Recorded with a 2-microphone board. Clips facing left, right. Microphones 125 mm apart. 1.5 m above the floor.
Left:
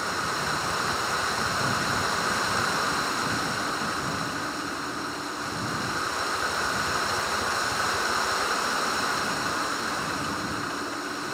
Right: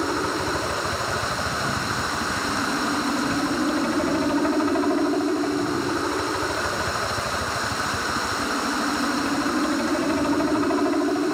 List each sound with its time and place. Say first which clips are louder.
0.0 s a helicopter: right 6 dB; 70° right (ahead or behind); by 11.3 s 60° right (ahead or behind)